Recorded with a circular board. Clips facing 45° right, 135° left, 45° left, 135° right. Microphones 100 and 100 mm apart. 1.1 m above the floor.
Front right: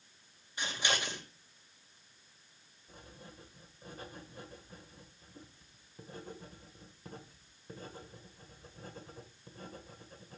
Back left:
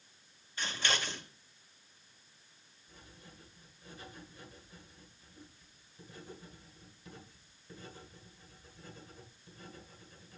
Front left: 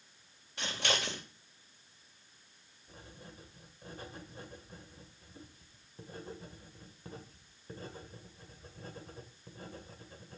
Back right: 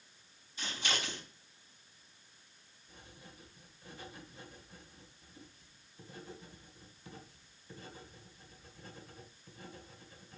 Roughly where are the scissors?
Ahead left.